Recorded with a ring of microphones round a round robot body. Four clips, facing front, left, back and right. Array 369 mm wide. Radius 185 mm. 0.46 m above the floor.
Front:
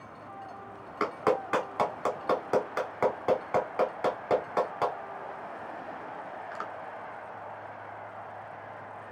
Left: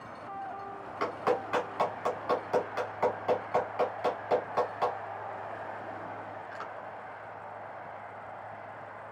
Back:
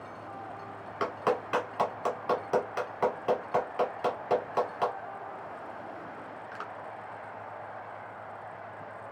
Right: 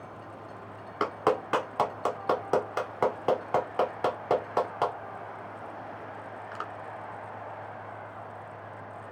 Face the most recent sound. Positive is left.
turn(degrees=-75)